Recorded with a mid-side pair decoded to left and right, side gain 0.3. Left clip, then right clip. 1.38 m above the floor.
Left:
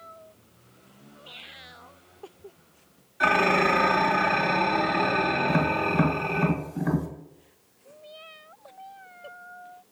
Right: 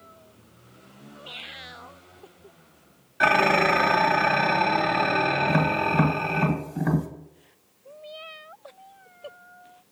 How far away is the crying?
I don't hear crying.